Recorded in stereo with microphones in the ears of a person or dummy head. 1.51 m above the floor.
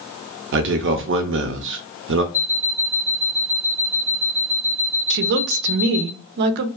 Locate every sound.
0.5 s a man speaking: 55° right (ahead or behind), 0.5 m
2.3 s an alarm clock: 25° left (ahead or behind), 1.8 m
5.1 s a woman speaking: 55° right (ahead or behind), 0.6 m